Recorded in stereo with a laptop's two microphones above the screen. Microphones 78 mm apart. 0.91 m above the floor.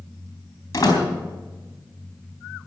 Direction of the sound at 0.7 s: 45° left (ahead or behind).